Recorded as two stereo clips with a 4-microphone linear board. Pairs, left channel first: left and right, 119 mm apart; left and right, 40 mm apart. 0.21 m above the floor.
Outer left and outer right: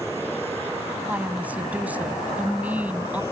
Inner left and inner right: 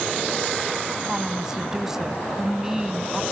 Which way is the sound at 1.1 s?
15° right (ahead or behind).